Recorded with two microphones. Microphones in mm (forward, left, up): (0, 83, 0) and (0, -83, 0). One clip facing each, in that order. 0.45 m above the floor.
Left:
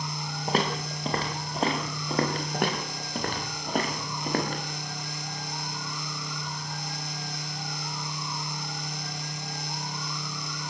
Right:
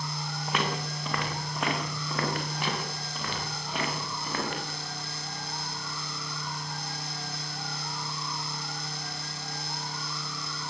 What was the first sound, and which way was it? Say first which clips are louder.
Footsteps: left 4 dB; 35° left (ahead or behind).